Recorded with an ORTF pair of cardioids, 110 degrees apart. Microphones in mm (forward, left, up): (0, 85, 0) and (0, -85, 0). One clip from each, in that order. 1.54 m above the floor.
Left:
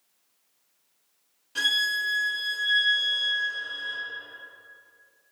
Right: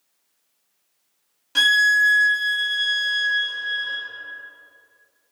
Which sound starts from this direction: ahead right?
A violin, at 1.6 s.